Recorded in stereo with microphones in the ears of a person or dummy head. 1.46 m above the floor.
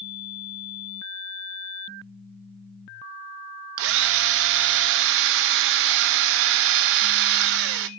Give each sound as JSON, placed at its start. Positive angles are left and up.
{"t": 3.8, "sound": "a drill", "side_deg": -60, "distance_m": 1.2}